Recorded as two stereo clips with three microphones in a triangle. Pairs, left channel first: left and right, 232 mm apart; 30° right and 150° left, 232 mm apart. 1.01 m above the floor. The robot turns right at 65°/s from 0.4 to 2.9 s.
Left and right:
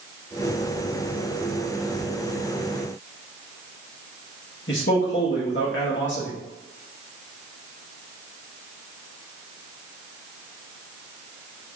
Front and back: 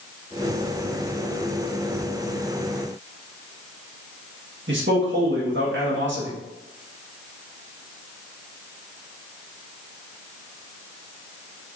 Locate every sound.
4.7 s a man speaking: 120° left, 1.3 m